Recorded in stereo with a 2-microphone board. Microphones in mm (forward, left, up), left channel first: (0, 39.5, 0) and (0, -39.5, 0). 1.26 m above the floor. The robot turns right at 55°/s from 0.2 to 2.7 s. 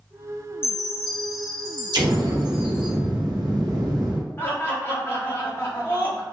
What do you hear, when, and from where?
0.6 s a chime: 35° left, 1.7 m; by 2.9 s 150° left, 1.7 m
1.9 s an explosion: 115° right, 0.8 m; by 4.2 s 70° right, 0.8 m
4.4 s laughter: 30° left (ahead or behind), 1.0 m